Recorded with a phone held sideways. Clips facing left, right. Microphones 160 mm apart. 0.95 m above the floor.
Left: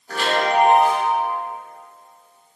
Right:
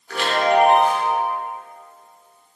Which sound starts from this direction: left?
A chime, at 0.1 s.